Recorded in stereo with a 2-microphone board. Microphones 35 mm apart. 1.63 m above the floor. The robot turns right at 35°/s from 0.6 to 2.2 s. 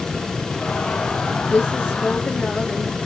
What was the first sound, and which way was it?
A woman speaking, 70° left (ahead or behind).